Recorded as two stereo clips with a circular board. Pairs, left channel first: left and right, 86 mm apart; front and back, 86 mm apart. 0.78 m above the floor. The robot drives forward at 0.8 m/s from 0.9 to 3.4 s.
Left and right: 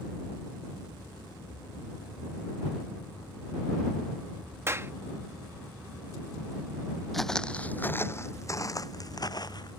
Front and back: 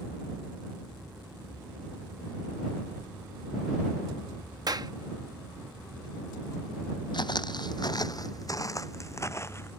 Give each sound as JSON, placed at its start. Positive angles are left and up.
{"t": 4.7, "sound": "a clap", "azimuth_deg": -145}
{"t": 7.1, "sound": "footsteps", "azimuth_deg": 0}